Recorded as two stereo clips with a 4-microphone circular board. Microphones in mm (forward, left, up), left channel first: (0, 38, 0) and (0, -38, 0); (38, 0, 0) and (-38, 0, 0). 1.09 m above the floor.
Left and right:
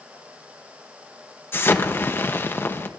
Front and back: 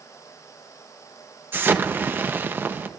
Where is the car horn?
No car horn in this recording.